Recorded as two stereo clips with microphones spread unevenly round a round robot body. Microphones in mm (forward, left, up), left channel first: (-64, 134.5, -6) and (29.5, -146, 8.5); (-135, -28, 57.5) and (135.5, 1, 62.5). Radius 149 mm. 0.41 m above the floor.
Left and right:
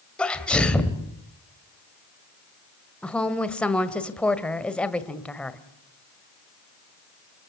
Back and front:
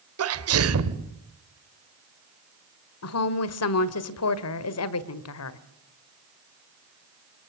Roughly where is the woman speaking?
Behind.